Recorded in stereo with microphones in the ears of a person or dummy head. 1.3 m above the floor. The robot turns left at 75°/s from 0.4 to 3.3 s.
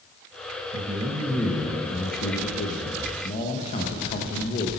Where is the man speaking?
130° right, 1.0 m; by 4.7 s 35° left, 1.0 m.